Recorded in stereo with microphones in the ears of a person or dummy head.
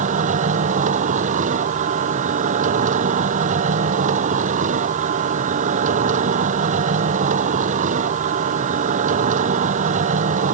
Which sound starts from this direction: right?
A machine running, at 0.0 s.